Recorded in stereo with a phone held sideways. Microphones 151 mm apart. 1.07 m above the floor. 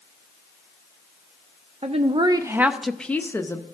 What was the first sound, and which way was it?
A woman speaking, 45° right (ahead or behind).